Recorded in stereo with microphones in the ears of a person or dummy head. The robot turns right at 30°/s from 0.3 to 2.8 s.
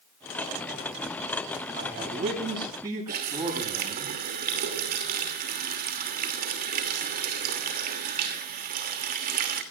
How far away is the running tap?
About 2.5 m.